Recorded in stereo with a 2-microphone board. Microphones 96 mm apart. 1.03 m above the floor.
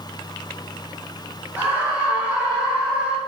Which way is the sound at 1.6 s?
20° right (ahead or behind).